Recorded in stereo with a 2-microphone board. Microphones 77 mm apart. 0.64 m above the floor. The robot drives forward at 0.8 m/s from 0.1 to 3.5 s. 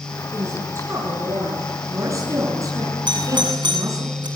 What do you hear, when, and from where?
0.3 s a woman speaking: 35° right (ahead or behind), 9.5 m; by 4.1 s 45° right (ahead or behind), 7.5 m
3.1 s a doorbell: 70° right (ahead or behind), 6.5 m; by 4.3 s 75° right (ahead or behind), 6.5 m